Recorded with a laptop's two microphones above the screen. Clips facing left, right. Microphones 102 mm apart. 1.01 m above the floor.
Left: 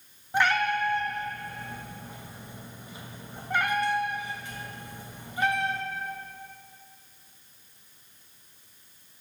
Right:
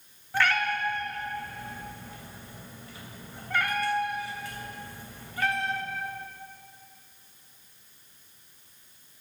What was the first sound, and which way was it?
A cat meowing, 20° left (ahead or behind).